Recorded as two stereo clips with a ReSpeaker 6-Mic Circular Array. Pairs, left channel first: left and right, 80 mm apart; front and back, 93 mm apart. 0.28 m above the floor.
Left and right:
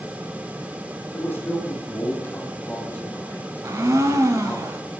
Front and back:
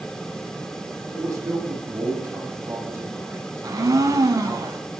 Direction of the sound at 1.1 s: 140° left.